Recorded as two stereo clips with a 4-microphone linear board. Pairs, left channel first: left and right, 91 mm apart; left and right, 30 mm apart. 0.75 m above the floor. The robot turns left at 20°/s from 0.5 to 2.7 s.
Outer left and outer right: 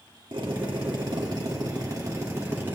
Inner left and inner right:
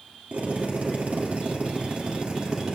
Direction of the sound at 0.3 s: 110° right.